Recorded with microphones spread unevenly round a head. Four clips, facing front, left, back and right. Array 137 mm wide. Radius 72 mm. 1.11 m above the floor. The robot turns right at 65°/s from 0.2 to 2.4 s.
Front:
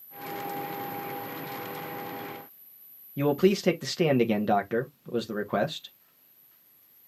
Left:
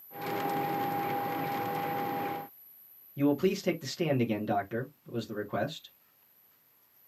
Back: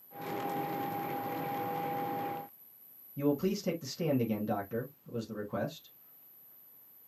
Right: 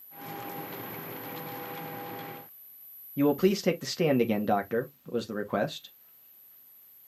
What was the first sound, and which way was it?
A man speaking, 20° right.